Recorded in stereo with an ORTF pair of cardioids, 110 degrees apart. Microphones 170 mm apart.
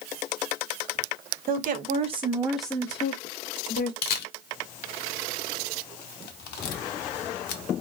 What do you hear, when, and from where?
1.5 s a woman speaking: 55° right, 0.8 m; by 3.9 s 60° left, 0.9 m
4.0 s a camera shutter: 65° left, 0.6 m